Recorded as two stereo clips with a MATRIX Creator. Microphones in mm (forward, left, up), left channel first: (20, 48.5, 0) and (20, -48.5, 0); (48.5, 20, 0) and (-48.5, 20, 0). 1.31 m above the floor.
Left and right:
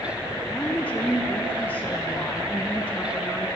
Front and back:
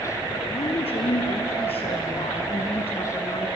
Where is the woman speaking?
15° left, 0.8 m.